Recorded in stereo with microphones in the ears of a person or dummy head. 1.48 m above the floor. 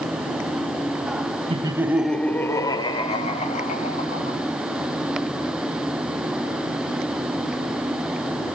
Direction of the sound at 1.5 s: 25° right (ahead or behind).